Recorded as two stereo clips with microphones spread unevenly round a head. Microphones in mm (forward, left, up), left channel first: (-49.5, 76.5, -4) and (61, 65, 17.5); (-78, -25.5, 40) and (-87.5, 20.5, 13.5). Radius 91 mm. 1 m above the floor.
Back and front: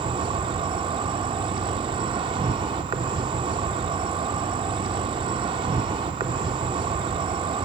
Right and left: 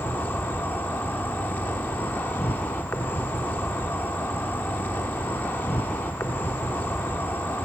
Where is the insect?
45° right, 0.8 m.